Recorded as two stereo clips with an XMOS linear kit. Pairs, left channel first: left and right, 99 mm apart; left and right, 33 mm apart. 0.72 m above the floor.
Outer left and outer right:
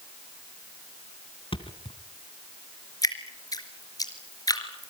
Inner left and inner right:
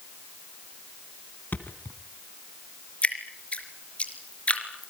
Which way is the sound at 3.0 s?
40° left (ahead or behind).